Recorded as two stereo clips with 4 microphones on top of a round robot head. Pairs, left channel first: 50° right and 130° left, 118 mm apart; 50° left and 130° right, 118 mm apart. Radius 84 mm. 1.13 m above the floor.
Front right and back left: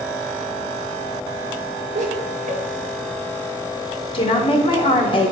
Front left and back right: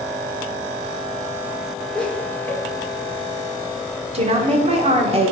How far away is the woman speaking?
About 1.4 m.